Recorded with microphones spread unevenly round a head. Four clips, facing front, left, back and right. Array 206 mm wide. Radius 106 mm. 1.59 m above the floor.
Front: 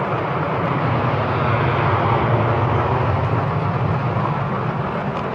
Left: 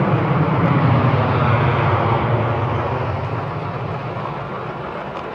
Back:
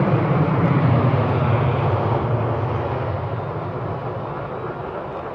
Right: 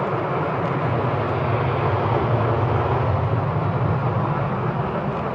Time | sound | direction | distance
0.0 | an aircraft | 120° left | ?